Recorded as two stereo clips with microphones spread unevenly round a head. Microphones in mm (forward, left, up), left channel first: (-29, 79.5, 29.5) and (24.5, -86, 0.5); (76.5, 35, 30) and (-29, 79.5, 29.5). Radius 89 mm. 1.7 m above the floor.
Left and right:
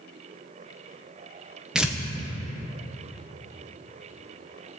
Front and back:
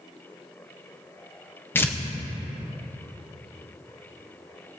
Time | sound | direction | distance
1.8 | tearing paper | 30° left | 0.7 m